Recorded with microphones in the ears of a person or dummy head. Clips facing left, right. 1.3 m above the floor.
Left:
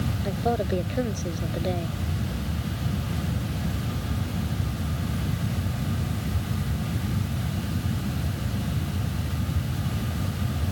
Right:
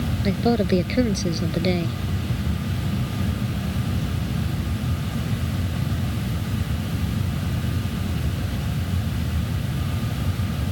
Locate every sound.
0.2 s a woman speaking: 30° right (ahead or behind)